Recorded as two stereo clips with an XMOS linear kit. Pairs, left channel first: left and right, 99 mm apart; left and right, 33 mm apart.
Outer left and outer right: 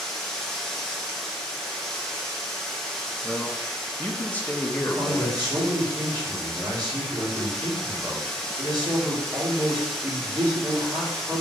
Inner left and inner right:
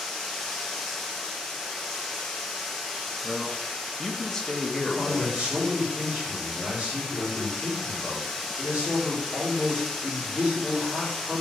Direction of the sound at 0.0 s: 5° left (ahead or behind).